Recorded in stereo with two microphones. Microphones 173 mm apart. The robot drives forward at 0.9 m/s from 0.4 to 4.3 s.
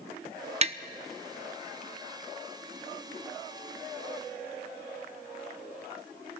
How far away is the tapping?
About 0.7 m.